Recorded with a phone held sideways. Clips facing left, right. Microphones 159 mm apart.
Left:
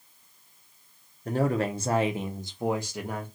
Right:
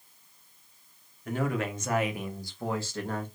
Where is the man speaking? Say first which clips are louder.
Left 4 dB; 35° left (ahead or behind), 0.6 m; by 3.3 s 10° left (ahead or behind), 1.0 m.